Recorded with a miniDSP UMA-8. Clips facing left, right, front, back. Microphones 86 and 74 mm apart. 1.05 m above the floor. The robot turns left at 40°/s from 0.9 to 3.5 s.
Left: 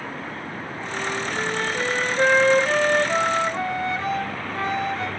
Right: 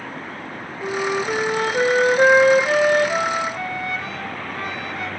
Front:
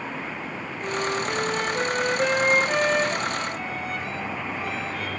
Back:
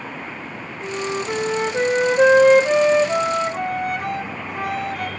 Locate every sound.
0.8 s a flute: 105° right, 1.4 m; by 5.1 s 155° left, 1.4 m